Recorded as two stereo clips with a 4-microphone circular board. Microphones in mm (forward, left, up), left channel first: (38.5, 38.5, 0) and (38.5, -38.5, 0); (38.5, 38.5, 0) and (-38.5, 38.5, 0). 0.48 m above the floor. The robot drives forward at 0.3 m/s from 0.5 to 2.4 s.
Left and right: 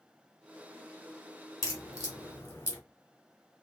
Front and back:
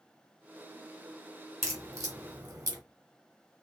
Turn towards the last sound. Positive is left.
turn(degrees=145)